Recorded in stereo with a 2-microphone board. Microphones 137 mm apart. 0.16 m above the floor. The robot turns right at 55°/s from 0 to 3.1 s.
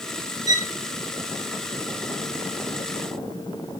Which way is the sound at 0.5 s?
30° right (ahead or behind).